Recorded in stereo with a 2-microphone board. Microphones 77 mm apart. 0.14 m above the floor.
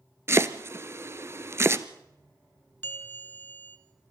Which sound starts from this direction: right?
Chopping, at 0.3 s.